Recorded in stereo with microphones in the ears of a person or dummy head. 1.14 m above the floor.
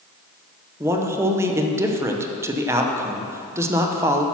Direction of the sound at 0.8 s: 15° right (ahead or behind).